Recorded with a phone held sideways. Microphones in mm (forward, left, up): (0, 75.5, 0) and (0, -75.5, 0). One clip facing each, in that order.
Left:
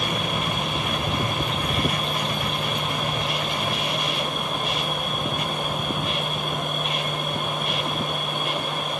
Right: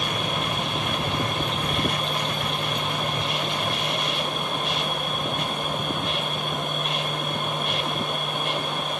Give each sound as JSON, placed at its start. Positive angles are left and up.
{"t": 0.0, "sound": "a machine running", "side_deg": 0, "distance_m": 1.9}